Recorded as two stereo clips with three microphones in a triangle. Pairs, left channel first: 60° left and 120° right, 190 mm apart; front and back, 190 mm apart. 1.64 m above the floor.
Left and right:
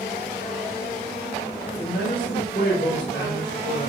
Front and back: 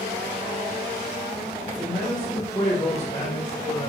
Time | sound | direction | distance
1.8 | a man speaking | 75° left | 1.9 m